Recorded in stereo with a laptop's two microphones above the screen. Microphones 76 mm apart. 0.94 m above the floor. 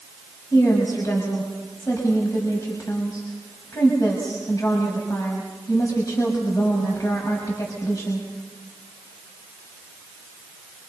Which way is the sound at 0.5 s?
45° left (ahead or behind).